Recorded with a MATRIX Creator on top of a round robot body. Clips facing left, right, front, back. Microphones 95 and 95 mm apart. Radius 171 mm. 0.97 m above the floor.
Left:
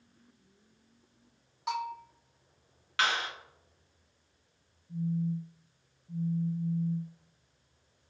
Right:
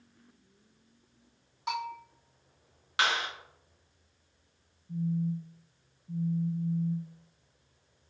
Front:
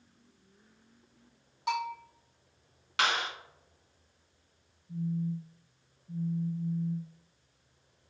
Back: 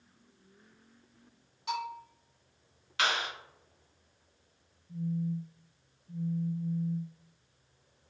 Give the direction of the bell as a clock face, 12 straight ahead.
12 o'clock.